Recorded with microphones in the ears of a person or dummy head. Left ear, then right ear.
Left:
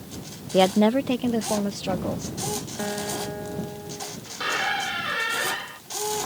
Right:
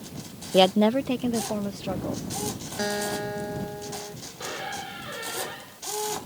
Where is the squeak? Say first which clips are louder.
Left 10 dB; 15° left (ahead or behind).